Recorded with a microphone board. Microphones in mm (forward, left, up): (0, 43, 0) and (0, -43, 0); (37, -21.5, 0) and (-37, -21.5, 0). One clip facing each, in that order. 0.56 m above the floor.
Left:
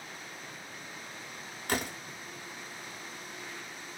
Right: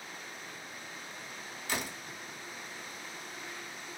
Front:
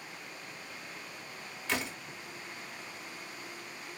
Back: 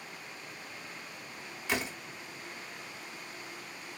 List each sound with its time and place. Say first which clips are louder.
1.7 s a door slam: left 4 dB, back 1 dB; 100° left, 0.6 m